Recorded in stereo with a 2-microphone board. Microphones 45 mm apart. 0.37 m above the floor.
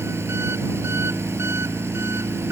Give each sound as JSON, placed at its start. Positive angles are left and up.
{"t": 0.0, "sound": "an engine running", "side_deg": -75}